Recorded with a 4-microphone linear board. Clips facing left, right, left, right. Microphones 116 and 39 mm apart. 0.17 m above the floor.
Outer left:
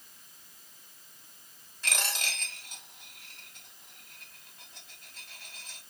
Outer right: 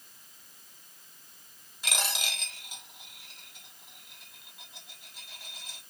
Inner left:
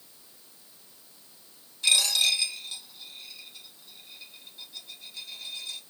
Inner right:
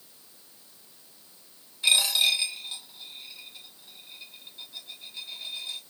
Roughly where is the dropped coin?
Centre.